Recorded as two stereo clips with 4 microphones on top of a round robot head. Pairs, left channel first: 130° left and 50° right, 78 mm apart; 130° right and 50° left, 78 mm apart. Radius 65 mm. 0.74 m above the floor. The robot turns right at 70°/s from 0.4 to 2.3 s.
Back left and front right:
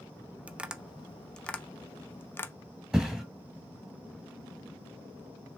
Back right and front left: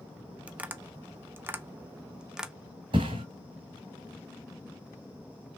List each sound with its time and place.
0.5 s tapping: 5° right, 0.7 m; by 2.5 s 125° left, 0.7 m
2.9 s a thud: 30° left, 1.2 m